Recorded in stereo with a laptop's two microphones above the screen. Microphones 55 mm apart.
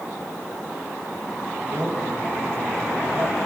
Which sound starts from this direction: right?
A man speaking, at 1.6 s.